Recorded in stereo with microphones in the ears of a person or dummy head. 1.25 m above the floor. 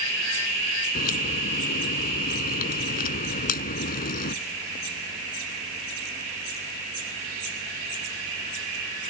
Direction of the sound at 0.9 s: 55° left (ahead or behind).